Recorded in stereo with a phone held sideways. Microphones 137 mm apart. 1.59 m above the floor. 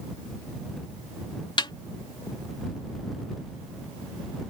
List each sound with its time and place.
1.6 s a snare drum: 35° left (ahead or behind)